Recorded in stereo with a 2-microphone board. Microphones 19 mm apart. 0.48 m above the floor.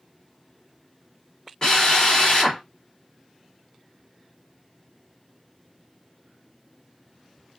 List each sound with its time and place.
1.6 s a drill: 35° left (ahead or behind), 1.7 m